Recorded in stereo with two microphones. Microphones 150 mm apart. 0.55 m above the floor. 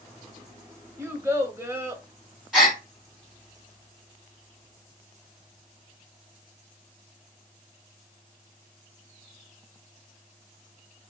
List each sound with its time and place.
1.0 s a child speaking: 15° right (ahead or behind), 0.7 m
2.5 s a gasp: centre (ahead or behind), 1.3 m